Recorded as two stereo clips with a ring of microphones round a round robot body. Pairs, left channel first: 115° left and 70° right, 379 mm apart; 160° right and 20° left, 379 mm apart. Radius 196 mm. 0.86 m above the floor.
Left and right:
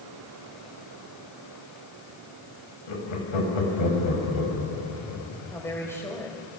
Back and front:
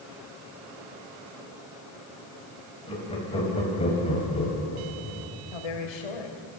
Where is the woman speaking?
165° right, 4.5 m.